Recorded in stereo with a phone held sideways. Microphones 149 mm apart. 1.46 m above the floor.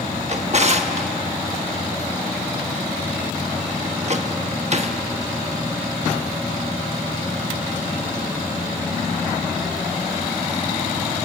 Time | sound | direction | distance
0.3 | a drawer | 50° right (ahead or behind) | 1.1 m